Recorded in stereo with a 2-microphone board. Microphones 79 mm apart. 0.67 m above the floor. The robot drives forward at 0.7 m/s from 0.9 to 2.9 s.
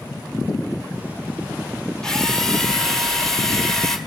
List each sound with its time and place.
2.0 s a drill: 5° left (ahead or behind), 1.9 m